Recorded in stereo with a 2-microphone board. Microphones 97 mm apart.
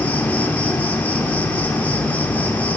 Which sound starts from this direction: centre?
An insect, at 0.0 s.